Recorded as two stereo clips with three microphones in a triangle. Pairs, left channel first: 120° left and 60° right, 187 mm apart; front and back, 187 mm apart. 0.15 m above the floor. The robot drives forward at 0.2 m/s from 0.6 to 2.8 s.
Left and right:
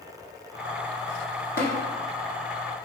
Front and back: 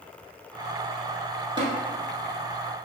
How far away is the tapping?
About 1.1 m.